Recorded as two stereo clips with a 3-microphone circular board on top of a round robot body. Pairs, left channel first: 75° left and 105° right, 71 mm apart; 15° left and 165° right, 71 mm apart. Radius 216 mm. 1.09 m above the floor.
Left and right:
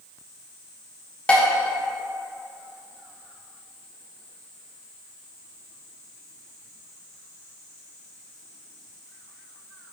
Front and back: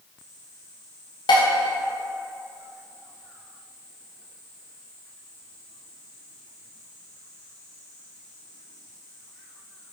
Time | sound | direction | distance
1.3 | dishes clattering | straight ahead | 0.9 m